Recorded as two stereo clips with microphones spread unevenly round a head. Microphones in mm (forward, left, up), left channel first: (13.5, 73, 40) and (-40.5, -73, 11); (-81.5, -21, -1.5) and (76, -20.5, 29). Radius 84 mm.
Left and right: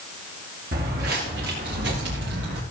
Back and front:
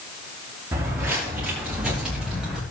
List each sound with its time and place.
0.7 s footsteps: 75° right, 4.5 m; by 2.6 s 90° right, 5.5 m